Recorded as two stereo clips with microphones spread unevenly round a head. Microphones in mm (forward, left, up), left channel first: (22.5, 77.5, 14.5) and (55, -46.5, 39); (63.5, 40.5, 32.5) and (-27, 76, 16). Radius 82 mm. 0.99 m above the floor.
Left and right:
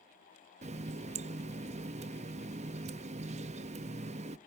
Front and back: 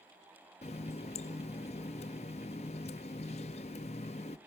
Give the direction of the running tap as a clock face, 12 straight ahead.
2 o'clock.